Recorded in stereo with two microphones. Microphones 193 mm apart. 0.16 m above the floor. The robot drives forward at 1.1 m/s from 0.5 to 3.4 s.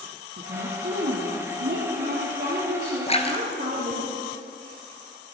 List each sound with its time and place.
0.4 s a woman speaking: 70° right (ahead or behind), 3 m; by 4.1 s 45° right (ahead or behind), 4.5 m
3.1 s a splash: 35° left (ahead or behind), 1.4 m; by 4.8 s 25° left (ahead or behind), 1.6 m